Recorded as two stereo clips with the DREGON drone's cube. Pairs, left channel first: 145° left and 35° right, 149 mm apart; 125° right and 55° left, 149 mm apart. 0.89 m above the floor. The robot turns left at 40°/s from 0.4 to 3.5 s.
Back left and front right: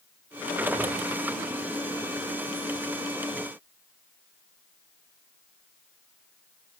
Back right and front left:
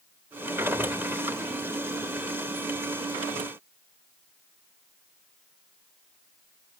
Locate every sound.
Only background noise.